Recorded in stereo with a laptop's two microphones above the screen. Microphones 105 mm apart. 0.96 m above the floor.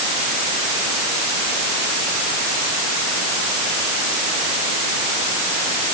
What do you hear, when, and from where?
Only background noise.